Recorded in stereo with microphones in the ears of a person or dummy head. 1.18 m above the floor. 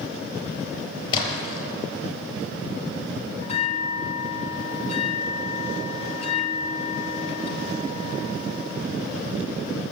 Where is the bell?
35° left (ahead or behind), 0.8 m.